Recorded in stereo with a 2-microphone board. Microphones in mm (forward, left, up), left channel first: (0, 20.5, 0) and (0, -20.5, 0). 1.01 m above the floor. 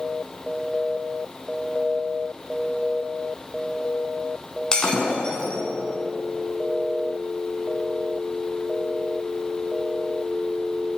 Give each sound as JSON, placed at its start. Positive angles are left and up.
{"t": 4.7, "sound": "breaking glass", "side_deg": 20, "distance_m": 4.0}